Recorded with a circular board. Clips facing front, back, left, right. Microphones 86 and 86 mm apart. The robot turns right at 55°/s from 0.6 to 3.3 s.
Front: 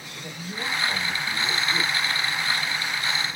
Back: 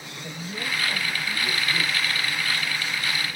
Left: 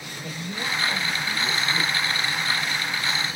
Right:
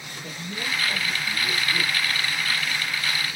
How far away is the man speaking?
About 1.8 m.